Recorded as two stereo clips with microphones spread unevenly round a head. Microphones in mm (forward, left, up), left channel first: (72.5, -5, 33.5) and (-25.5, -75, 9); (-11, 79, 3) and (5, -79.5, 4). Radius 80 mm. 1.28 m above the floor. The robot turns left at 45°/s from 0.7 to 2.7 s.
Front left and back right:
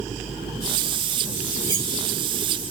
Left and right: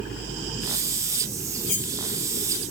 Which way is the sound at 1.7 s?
150° left.